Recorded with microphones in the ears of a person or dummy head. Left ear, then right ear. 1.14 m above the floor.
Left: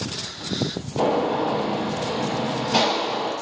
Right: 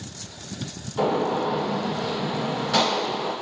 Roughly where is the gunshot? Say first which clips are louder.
Left 2 dB; right.